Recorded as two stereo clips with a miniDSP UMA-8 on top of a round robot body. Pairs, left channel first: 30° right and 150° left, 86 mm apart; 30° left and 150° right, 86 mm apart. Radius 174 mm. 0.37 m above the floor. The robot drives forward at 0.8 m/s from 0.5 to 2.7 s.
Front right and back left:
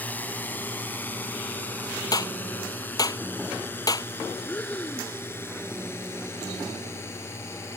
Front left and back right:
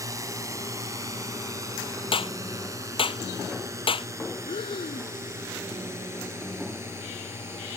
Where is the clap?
15° left.